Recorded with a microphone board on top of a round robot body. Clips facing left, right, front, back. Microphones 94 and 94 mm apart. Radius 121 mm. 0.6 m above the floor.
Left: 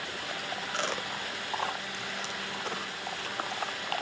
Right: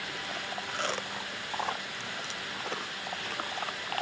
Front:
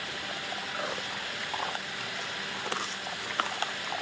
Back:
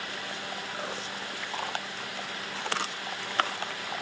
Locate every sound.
Only background noise.